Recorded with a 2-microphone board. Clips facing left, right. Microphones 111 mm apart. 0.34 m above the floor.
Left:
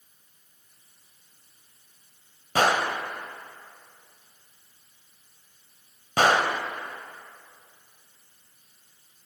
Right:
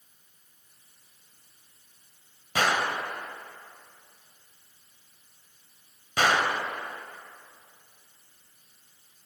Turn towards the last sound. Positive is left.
turn(degrees=45)  # may be behind; listen again after turning